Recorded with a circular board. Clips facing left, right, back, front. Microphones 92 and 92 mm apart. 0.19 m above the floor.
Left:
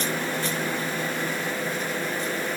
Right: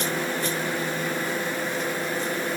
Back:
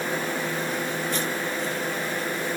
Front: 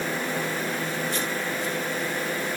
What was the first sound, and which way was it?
Only background noise.